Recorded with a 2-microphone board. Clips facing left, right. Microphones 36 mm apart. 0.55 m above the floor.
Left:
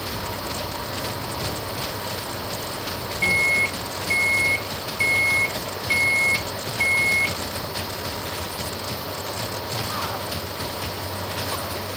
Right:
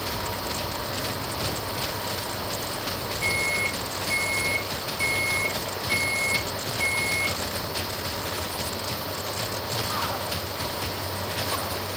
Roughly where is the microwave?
Left.